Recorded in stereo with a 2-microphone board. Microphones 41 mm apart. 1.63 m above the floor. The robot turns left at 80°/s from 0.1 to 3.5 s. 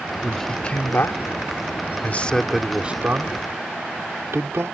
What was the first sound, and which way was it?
A man speaking, 5° right (ahead or behind).